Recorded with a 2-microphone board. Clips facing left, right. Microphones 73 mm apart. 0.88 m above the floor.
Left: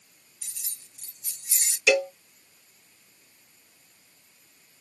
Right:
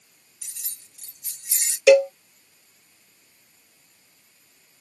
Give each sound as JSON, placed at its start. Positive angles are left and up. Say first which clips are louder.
{"t": 0.4, "sound": "keys jangling", "louder": "right 1 dB", "side_deg": -85, "distance_m": 1.7}
{"t": 1.9, "sound": "a cowbell", "louder": "right 9 dB", "side_deg": -70, "distance_m": 2.0}